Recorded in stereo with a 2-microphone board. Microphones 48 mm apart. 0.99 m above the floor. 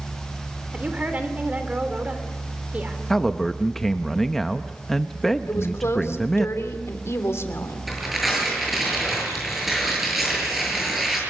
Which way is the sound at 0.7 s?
30° right (ahead or behind).